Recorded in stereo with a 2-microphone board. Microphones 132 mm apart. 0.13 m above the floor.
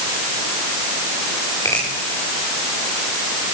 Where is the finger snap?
25° left (ahead or behind), 9 m.